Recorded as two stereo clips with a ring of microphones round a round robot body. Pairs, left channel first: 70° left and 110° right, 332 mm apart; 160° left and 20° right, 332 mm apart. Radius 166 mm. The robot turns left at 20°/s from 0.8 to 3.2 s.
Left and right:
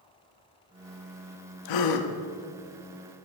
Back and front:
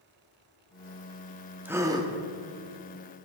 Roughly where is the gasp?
Ahead left.